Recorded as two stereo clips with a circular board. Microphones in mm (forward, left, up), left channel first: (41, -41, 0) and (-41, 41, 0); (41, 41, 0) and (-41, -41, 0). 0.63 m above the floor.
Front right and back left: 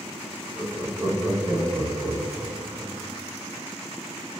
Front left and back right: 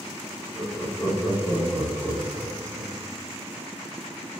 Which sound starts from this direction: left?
Laughter, at 0.6 s.